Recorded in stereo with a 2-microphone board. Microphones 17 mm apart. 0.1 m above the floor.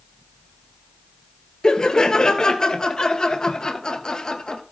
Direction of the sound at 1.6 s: 40° left (ahead or behind).